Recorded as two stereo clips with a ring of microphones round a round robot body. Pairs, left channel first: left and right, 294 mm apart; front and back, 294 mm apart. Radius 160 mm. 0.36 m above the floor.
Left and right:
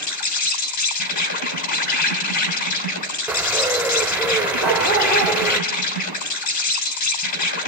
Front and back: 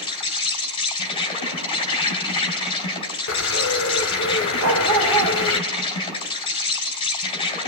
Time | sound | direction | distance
0.0 | an insect | 75° left | 3 m
3.3 | a bird | 5° right | 0.9 m
4.6 | a dog barking | 135° left | 9 m